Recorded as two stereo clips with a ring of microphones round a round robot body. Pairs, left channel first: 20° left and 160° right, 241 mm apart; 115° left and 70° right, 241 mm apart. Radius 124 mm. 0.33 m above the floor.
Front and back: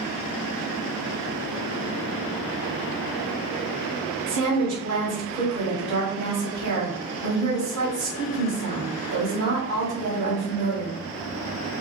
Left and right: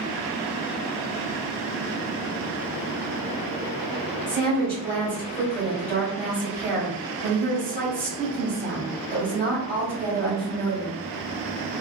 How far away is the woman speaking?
About 1.5 m.